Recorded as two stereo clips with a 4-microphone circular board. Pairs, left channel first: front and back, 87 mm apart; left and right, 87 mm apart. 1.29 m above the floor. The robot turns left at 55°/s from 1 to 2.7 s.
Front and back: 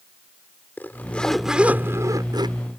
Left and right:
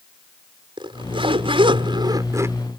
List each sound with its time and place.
0.8 s a zipper: 70° right; by 2.6 s 155° right